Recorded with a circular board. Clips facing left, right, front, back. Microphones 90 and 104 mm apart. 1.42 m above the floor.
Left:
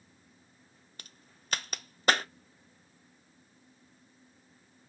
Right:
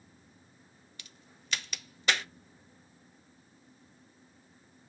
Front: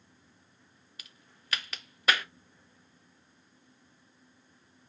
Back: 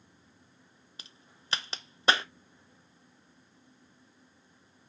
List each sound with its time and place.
1.0 s a crack: 125° left, 0.7 m